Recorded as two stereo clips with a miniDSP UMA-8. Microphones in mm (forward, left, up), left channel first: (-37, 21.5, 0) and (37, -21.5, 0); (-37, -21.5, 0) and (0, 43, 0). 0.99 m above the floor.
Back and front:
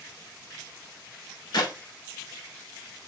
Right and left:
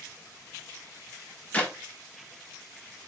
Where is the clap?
170° left, 1.0 m.